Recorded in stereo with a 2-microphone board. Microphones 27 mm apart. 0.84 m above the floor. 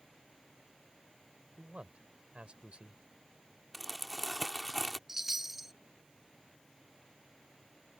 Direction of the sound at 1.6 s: 50° right (ahead or behind).